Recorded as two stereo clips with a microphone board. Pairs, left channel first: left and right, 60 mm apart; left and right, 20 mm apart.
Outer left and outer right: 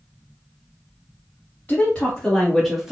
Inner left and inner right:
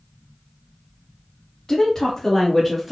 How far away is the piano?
I don't hear a piano.